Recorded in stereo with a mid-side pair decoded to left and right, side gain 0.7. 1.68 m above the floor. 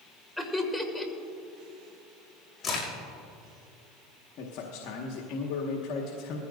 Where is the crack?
30° left, 5.5 m.